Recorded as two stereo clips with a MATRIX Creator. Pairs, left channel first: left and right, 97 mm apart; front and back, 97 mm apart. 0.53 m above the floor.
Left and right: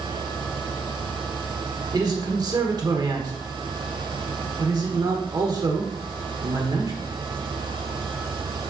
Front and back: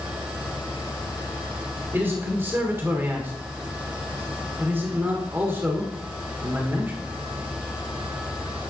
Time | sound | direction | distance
1.9 | a man speaking | 120° right | 1.4 m